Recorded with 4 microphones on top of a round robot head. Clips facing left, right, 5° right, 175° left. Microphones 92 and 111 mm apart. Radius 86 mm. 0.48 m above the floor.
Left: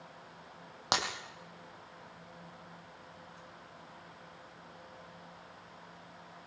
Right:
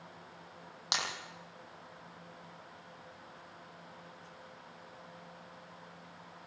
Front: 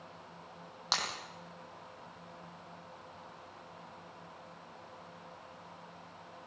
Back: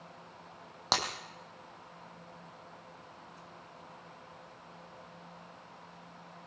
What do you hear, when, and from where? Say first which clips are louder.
0.9 s breaking glass: left 5 dB, back 5 dB; 135° left, 3.5 m